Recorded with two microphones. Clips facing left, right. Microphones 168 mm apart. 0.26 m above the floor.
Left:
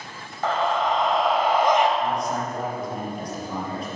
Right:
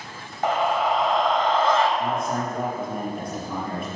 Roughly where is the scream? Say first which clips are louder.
Right 1 dB; centre.